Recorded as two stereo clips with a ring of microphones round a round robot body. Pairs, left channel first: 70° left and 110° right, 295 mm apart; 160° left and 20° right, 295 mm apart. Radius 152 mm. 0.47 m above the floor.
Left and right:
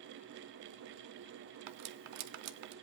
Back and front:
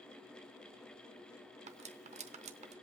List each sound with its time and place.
1.7 s cutlery clinking: 90° right, 0.8 m